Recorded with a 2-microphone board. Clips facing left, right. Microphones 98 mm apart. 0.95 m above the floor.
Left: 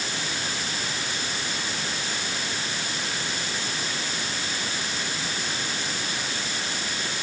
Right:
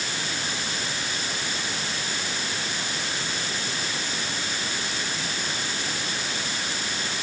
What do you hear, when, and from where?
Only background noise.